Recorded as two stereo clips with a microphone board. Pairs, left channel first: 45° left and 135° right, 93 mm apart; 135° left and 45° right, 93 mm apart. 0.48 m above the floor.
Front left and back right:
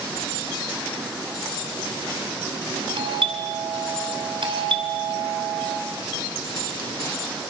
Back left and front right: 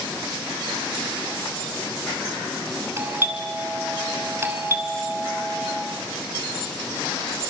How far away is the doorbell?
About 6 m.